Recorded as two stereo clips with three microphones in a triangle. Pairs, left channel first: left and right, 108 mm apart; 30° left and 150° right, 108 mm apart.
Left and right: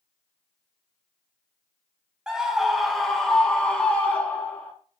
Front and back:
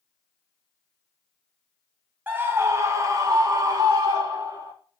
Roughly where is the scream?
Behind right.